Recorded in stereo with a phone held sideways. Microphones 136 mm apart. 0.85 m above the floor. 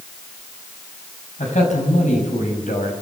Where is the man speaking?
65° left (ahead or behind), 6.5 m; by 2.9 s 70° left (ahead or behind), 5.5 m.